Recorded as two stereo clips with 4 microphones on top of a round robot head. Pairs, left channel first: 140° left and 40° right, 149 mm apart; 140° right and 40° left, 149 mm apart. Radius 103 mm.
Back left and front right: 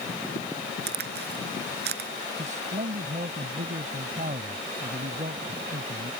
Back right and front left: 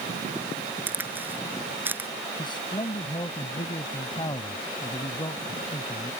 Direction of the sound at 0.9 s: 35° right.